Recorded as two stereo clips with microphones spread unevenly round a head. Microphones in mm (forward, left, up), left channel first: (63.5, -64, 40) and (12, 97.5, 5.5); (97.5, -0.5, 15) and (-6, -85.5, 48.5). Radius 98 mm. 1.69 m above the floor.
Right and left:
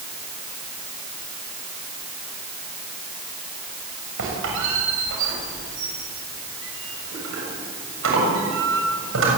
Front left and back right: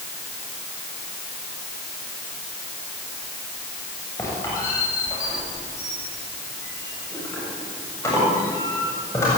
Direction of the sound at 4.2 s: 120° left.